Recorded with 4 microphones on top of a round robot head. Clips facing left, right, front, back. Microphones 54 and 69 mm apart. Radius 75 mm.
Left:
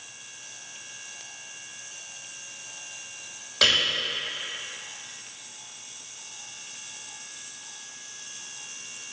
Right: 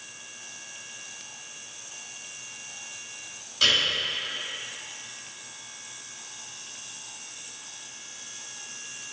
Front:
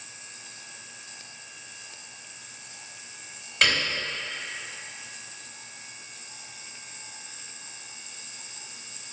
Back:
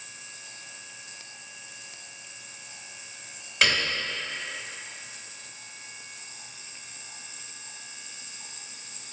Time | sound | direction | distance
3.6 | a piano | 90° left | 2.5 m